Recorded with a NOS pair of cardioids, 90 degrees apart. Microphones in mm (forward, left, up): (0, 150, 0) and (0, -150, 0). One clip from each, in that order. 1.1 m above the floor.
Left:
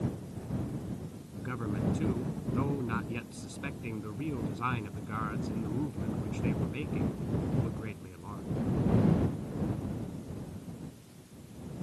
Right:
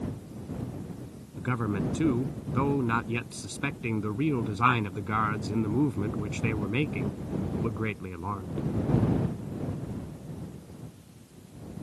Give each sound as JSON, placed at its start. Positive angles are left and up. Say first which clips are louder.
{"t": 1.4, "sound": "a man speaking", "louder": "right 6 dB", "azimuth_deg": -55}